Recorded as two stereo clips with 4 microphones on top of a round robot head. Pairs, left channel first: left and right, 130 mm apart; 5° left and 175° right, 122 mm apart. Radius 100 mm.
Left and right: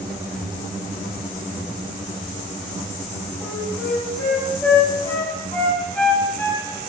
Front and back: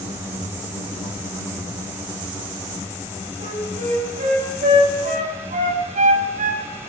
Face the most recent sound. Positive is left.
turn(degrees=170)